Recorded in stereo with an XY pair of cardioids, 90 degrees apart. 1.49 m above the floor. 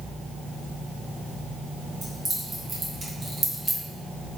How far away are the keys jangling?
About 1.6 m.